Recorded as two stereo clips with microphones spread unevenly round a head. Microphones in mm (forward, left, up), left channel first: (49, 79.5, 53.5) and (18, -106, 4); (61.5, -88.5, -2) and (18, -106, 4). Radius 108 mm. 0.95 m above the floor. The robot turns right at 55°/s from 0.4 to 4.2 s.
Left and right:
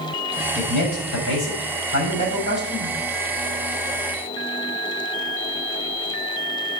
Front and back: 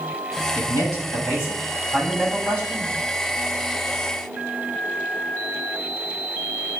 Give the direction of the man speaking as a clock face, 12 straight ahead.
10 o'clock.